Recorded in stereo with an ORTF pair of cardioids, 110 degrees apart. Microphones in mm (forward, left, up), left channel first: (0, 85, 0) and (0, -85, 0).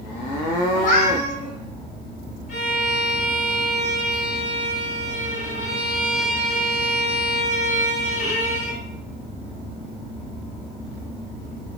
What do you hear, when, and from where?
0.7 s a cat meowing: 55° left, 2.5 m
2.5 s a violin: 45° left, 3 m